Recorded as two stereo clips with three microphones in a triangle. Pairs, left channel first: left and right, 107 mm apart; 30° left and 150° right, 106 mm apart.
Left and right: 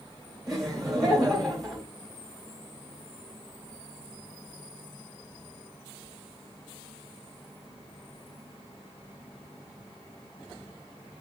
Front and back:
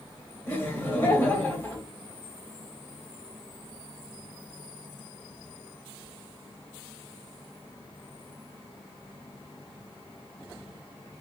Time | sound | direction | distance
0.5 | laughter | straight ahead | 1.1 m